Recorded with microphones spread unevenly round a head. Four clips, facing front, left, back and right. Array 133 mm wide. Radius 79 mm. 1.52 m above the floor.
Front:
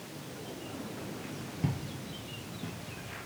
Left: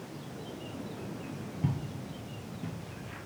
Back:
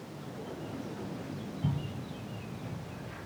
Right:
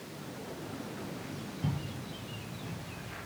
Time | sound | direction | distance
1.6 | footsteps | 10° left | 1.9 m